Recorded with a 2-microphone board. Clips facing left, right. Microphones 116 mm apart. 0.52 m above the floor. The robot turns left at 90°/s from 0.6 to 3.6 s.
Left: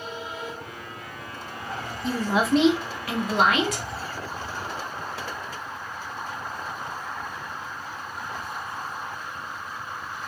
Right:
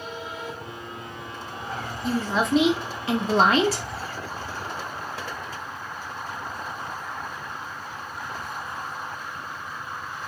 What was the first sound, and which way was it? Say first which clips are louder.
A woman speaking: left 1 dB; 45° left.